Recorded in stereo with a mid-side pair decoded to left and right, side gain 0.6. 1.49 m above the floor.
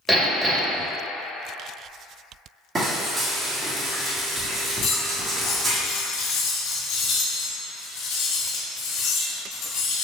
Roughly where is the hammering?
Ahead.